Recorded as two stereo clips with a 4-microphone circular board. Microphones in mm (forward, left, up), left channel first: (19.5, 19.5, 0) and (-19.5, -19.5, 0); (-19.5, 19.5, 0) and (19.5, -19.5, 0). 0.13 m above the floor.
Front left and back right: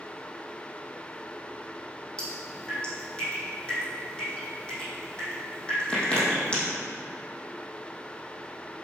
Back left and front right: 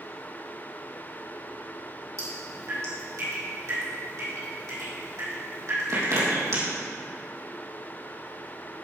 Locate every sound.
2.2 s dripping: 25° right, 4.5 m